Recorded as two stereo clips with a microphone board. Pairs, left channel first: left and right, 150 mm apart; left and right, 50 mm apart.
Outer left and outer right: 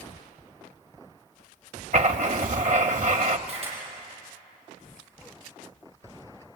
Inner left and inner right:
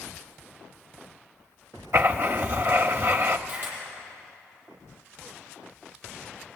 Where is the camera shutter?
40° right (ahead or behind), 7.5 m.